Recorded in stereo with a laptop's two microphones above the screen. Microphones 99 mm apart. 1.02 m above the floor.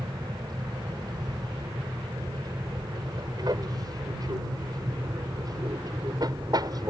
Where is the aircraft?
45° right (ahead or behind); by 6.9 s 40° right (ahead or behind).